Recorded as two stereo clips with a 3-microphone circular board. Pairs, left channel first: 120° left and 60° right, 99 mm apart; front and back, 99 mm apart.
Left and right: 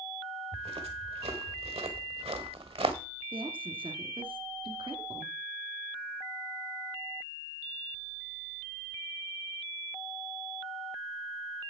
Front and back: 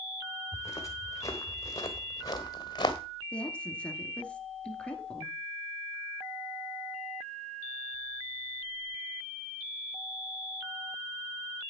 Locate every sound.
0.5 s footsteps: 60° right, 4 m; by 3.0 s 45° right, 1.9 m
3.3 s a woman speaking: 75° right, 2.5 m